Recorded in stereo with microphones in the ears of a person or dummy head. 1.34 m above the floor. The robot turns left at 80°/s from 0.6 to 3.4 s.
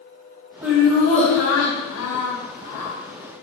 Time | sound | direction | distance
0.6 | laughter | 175° right | 1.0 m